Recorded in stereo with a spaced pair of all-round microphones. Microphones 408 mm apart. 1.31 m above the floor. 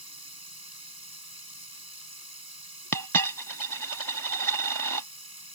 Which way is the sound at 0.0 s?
60° right (ahead or behind).